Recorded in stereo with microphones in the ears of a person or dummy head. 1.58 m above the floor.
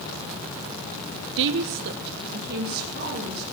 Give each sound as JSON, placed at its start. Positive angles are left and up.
{"t": 1.4, "sound": "a woman speaking", "side_deg": -65, "distance_m": 0.5}